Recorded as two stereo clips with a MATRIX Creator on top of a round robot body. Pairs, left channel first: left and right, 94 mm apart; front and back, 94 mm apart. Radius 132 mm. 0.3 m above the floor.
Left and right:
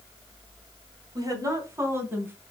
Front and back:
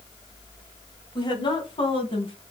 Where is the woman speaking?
40° right, 3 m; by 2.4 s 20° right, 3.5 m.